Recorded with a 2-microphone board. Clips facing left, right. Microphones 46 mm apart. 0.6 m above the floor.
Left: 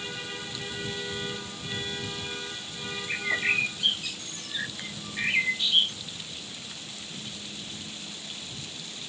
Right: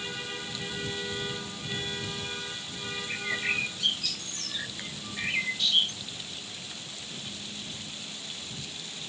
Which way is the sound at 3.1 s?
25° left (ahead or behind).